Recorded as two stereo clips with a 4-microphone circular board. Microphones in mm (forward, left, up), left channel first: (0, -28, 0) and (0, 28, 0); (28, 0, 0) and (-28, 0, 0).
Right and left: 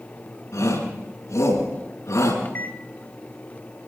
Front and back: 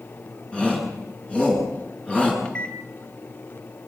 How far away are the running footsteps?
I don't hear running footsteps.